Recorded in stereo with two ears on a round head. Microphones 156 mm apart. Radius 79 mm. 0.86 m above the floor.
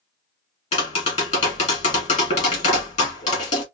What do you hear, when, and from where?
0.7 s tapping: 40° left (ahead or behind), 2.5 m